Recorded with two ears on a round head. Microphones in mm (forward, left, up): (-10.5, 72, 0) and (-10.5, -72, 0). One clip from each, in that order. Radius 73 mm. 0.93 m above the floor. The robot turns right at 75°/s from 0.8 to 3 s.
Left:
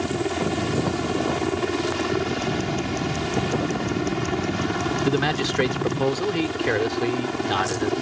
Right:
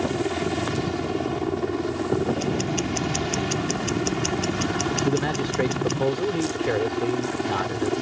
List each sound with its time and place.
0.0 s a helicopter: 5° left; by 8.0 s 170° left
2.4 s ticking: 150° right; by 6.0 s 105° right
5.0 s a man speaking: 55° left (ahead or behind)